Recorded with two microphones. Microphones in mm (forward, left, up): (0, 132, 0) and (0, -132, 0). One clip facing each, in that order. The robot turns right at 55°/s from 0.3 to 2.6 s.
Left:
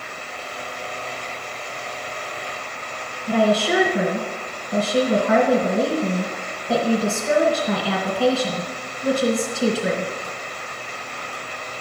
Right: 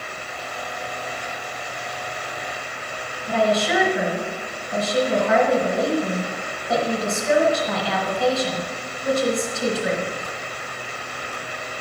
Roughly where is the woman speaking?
Left.